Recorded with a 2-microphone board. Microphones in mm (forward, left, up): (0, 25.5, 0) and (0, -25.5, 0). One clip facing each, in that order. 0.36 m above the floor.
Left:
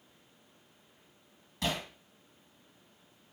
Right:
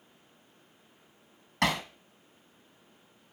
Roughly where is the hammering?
Right.